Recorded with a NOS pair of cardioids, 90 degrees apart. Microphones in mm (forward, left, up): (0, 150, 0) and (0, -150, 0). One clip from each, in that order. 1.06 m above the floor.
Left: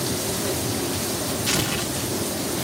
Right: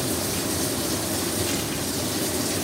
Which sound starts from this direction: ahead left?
Tearing paper, at 1.5 s.